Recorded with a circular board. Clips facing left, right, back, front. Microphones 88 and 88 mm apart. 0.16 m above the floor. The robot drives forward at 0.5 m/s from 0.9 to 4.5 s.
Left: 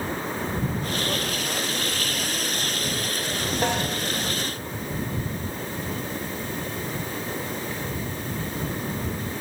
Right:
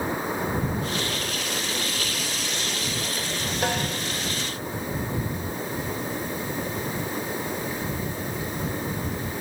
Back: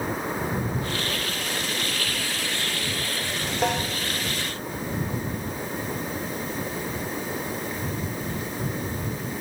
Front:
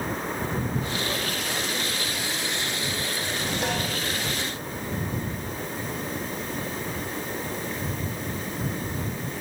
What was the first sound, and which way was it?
A snare drum, 130° left.